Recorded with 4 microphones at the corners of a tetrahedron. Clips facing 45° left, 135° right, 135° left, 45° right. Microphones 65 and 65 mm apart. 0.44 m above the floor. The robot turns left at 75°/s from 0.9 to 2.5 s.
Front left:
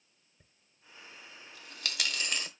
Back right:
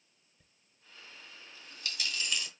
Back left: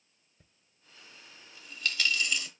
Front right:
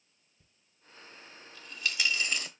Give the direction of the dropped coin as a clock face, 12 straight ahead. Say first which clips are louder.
Front left 2 dB, front right 1 dB; 8 o'clock.